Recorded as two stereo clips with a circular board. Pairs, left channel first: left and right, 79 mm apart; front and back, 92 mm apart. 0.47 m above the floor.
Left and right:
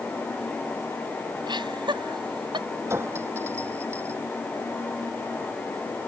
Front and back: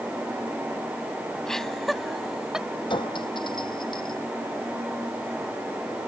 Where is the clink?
30° right.